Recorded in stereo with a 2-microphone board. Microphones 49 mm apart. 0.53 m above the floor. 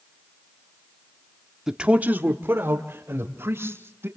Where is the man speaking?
10° right (ahead or behind), 0.9 m; by 4.1 s 65° right (ahead or behind), 3 m.